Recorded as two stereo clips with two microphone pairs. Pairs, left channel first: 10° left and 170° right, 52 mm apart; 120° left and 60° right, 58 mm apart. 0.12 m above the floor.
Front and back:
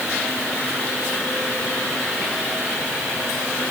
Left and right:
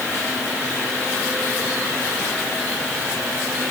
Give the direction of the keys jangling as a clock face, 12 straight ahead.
No keys jangling in this recording.